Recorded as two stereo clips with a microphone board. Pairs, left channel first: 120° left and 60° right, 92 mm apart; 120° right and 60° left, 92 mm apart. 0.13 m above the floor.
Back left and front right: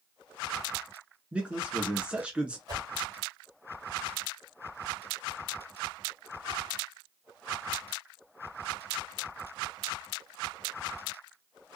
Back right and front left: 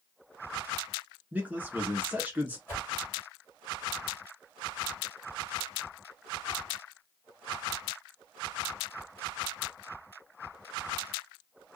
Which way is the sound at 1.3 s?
5° left.